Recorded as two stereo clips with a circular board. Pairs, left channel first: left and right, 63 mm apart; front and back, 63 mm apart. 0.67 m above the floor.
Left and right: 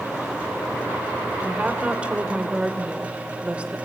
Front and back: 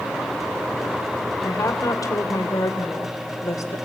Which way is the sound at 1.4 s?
20° right.